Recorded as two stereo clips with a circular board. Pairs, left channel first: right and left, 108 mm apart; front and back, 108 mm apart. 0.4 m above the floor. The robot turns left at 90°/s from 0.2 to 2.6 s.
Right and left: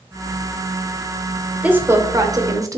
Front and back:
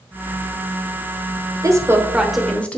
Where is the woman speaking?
155° left, 1.0 m; by 2.8 s 70° left, 1.0 m.